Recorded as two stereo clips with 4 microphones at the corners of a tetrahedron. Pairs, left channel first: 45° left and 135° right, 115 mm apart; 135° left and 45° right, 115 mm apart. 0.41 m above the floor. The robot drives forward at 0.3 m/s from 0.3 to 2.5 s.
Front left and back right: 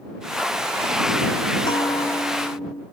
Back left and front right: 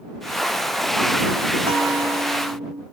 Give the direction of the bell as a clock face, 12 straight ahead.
12 o'clock.